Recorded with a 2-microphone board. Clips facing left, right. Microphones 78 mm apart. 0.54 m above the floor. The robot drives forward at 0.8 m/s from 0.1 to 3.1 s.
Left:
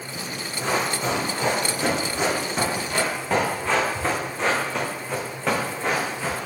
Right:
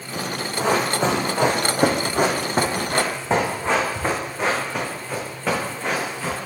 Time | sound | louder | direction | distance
0.6 | running footsteps | right 4 dB | 75° right (ahead or behind) | 2.5 m